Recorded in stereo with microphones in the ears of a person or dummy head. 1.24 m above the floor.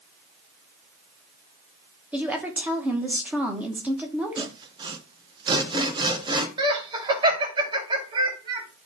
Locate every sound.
2.1 s a woman speaking: 10° right (ahead or behind), 1.4 m
4.4 s sawing: 25° right (ahead or behind), 1.2 m
6.6 s laughter: 20° right (ahead or behind), 2.5 m